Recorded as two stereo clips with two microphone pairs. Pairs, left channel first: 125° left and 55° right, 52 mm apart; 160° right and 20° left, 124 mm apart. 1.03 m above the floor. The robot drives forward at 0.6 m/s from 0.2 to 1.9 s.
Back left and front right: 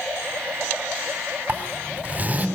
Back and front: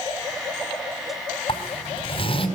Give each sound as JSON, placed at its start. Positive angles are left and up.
{"t": 1.5, "sound": "a zipper", "azimuth_deg": -110, "distance_m": 4.0}